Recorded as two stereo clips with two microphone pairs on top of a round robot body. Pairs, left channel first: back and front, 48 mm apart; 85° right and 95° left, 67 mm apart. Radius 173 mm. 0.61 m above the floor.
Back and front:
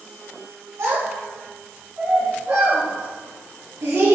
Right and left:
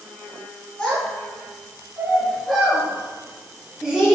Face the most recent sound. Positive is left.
turn(degrees=10)